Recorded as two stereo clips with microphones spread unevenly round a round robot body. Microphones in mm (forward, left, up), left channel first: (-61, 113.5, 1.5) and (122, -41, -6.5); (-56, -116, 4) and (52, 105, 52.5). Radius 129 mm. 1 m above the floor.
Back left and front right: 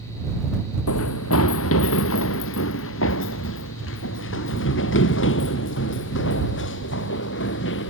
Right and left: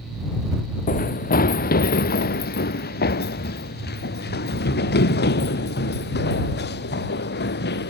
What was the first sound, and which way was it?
Running footsteps, straight behind.